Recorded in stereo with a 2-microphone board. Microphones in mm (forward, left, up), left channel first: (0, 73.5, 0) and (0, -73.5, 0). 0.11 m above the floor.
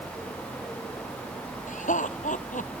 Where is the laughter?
65° left (ahead or behind).